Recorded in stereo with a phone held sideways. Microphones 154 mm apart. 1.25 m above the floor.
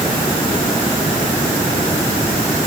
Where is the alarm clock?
No alarm clock in this recording.